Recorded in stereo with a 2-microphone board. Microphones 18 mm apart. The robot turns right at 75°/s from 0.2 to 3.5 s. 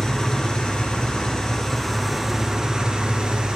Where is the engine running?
45° left, 1.1 m; by 3.6 s 65° right, 1.1 m.